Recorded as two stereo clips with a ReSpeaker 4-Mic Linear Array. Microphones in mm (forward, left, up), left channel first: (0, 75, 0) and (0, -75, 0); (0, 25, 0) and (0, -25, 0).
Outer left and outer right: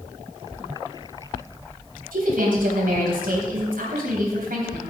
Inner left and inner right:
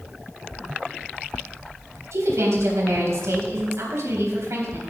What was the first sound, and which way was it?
A woman speaking, 75° right (ahead or behind).